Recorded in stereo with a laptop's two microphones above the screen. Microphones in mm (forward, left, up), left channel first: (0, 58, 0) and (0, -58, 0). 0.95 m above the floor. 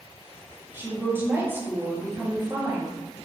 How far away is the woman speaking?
About 0.6 m.